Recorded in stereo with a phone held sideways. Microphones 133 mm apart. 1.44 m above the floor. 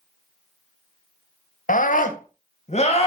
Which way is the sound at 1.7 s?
75° left (ahead or behind).